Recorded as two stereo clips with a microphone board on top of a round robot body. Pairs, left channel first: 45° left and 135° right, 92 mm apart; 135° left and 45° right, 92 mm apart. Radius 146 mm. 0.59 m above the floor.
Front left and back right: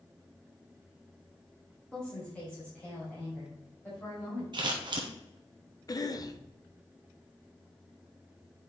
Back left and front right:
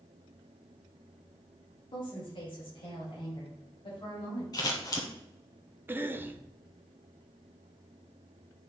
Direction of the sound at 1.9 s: 125° left.